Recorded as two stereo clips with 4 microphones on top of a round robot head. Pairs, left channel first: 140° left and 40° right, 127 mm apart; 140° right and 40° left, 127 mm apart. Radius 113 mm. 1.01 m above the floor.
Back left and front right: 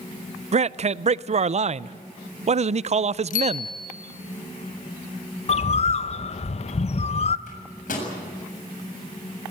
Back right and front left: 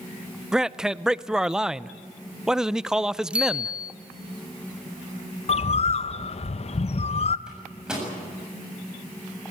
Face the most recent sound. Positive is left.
turn(degrees=125)